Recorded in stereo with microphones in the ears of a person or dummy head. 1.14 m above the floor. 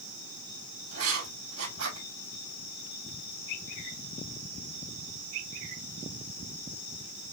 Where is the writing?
85° right, 3.5 m.